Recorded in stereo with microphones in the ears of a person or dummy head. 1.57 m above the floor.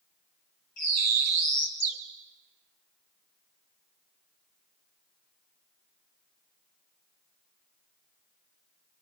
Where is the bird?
45° left (ahead or behind), 2.5 m.